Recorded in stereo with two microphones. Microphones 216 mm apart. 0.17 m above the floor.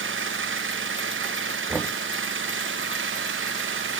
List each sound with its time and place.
0.0 s an engine running: 65° right (ahead or behind)
1.7 s knocking: centre (ahead or behind)